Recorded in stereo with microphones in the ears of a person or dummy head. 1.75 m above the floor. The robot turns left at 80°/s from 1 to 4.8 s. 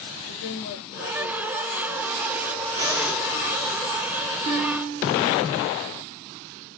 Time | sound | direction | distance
0.3 | a woman speaking | 90° left | 2 m
2.8 | breathing | 150° right | 1.5 m
4.5 | a guitar | 40° right (ahead or behind) | 0.9 m